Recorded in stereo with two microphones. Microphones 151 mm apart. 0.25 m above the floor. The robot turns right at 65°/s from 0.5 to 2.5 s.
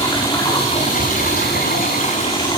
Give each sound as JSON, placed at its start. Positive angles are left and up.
{"t": 0.0, "sound": "running water", "azimuth_deg": 25, "distance_m": 7.5}